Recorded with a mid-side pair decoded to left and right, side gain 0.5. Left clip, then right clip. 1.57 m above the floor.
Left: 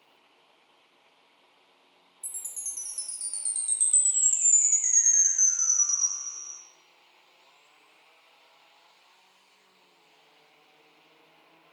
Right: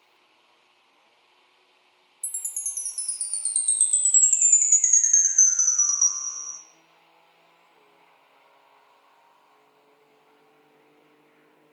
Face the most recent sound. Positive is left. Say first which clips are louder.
# right 5 dB
turn(degrees=-55)